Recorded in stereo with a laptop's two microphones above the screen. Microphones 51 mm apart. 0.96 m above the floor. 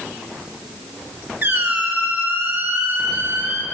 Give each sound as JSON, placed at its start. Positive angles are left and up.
{"t": 1.4, "sound": "a squeak", "side_deg": -40, "distance_m": 1.2}